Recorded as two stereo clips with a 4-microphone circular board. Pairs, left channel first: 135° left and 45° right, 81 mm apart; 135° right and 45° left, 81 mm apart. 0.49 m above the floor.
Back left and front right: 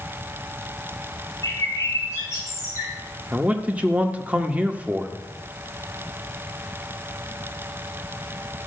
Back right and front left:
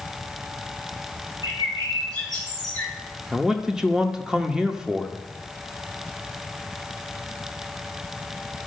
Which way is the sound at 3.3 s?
25° right.